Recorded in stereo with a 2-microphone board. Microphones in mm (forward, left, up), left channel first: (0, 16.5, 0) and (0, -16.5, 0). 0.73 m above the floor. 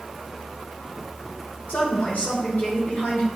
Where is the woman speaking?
60° left (ahead or behind), 3.5 m.